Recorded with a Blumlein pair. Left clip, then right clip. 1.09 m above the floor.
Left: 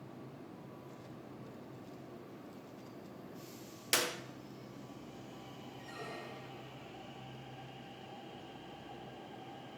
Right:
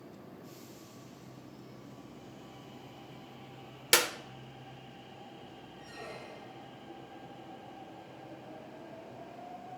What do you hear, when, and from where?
3.9 s a clap: 20° right, 1.0 m
5.8 s a squeak: 5° left, 1.8 m